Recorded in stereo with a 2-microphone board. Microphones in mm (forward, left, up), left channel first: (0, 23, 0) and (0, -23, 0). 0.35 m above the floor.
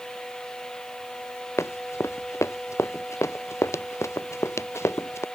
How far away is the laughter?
No laughter in this recording.